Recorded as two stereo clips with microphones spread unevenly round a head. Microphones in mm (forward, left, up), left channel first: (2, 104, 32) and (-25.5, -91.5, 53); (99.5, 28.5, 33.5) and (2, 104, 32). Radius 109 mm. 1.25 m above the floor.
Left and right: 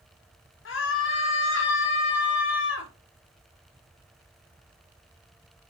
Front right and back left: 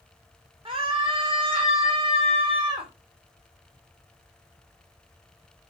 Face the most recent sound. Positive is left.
turn(degrees=100)